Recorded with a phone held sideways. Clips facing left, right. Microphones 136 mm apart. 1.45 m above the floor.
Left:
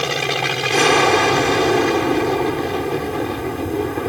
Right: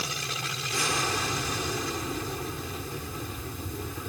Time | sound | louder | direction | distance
0.0 | an aircraft | left 15 dB | 75° left (ahead or behind) | ?